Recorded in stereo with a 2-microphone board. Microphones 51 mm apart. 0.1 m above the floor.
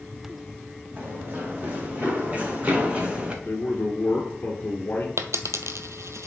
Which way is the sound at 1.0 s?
35° right (ahead or behind).